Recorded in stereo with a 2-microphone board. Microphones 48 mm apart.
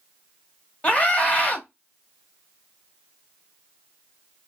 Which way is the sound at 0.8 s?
25° left (ahead or behind).